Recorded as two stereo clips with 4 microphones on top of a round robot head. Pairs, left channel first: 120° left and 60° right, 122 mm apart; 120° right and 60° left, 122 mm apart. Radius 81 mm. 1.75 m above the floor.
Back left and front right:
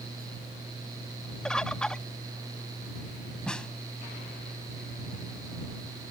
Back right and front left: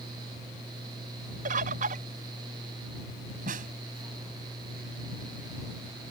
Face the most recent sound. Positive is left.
turn(degrees=35)